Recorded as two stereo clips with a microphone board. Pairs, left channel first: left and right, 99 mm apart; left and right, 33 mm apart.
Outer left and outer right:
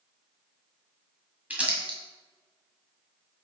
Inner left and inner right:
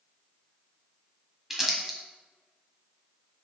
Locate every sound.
1.5 s crumpling: 15° right (ahead or behind), 1.6 m